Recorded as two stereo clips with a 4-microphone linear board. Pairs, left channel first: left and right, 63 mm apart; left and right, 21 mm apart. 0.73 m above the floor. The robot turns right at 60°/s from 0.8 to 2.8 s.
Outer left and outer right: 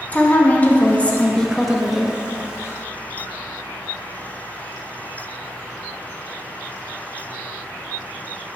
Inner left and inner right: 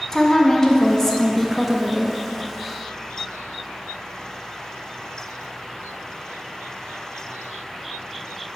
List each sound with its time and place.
0.1 s a woman speaking: 25° left (ahead or behind), 0.8 m; by 2.2 s 10° right (ahead or behind), 0.8 m